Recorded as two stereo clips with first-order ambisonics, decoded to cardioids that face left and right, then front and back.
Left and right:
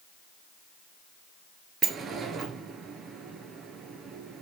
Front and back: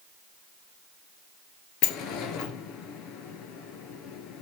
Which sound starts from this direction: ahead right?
A sliding door, at 1.8 s.